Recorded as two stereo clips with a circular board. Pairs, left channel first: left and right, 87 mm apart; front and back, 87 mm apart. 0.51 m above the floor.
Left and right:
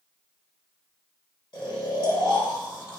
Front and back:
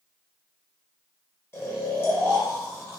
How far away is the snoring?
About 0.7 m.